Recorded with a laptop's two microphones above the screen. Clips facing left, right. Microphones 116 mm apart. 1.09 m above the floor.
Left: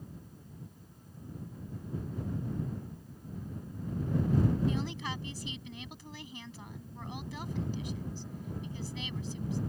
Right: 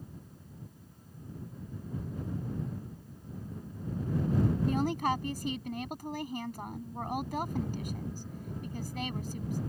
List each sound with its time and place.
4.7 s a woman speaking: 50° right (ahead or behind)